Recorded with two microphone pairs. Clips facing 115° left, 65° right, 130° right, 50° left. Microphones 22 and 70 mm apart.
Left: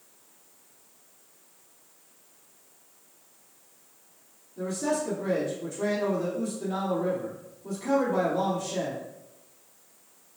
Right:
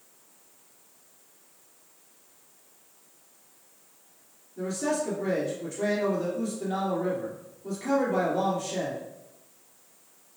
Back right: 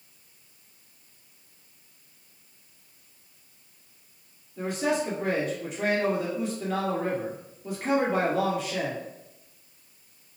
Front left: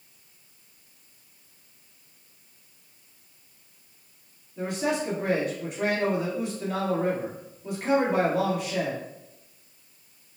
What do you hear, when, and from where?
4.6 s a man speaking: 45° right, 1.8 m